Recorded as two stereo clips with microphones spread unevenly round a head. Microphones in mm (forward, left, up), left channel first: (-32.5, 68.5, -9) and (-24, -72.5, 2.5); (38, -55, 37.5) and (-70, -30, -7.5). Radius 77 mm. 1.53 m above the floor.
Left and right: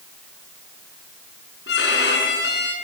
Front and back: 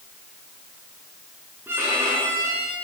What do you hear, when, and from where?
1.7 s a violin: 85° left, 7 m